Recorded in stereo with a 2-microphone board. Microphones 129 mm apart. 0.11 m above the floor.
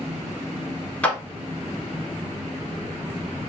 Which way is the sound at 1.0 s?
10° left (ahead or behind).